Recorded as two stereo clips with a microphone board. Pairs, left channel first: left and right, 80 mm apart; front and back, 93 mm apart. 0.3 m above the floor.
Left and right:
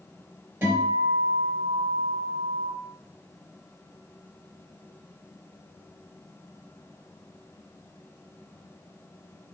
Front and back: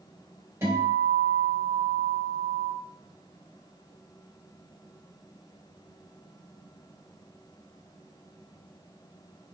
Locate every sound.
0.6 s a guitar: 135° right, 2.0 m